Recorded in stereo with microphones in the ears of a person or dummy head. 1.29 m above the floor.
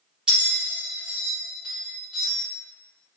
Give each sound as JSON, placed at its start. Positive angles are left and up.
{"t": 0.3, "sound": "a bell", "side_deg": 0, "distance_m": 1.2}